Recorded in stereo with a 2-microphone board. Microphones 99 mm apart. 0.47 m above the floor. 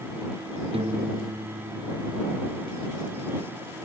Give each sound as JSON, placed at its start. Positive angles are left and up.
{"t": 0.7, "sound": "a piano", "side_deg": -75}